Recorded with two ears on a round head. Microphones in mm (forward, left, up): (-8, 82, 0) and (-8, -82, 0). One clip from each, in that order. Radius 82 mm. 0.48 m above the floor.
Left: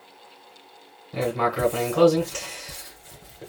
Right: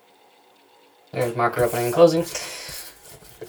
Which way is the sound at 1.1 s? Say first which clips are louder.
Right 3 dB; 30° right (ahead or behind).